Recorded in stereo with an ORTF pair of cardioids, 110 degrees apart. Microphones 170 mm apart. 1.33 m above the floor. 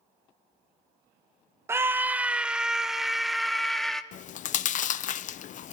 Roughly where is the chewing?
Ahead left.